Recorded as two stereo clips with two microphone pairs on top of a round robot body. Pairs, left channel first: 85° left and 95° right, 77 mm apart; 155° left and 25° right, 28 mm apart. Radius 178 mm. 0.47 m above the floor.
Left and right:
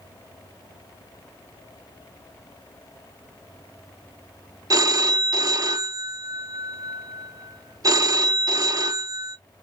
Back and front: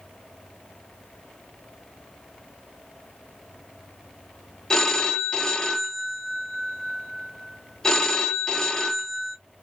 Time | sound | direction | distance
4.7 | a phone ringing | 135° right | 0.7 m